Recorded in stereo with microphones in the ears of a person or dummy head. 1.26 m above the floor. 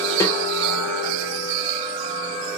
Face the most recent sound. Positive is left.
turn(degrees=25)  # may be behind; listen again after turning